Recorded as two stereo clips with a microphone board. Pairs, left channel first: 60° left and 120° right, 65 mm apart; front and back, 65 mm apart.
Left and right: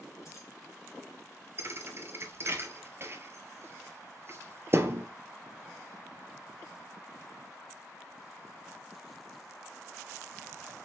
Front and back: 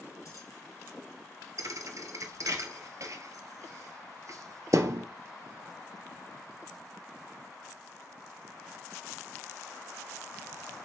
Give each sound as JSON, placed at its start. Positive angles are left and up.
{"t": 0.2, "sound": "keys jangling", "azimuth_deg": 25, "distance_m": 2.5}
{"t": 1.6, "sound": "a thud", "azimuth_deg": -160, "distance_m": 0.6}